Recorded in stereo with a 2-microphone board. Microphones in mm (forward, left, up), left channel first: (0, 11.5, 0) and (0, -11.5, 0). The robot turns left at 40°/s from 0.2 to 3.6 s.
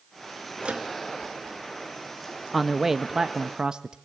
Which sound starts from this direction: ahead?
A man speaking, at 2.5 s.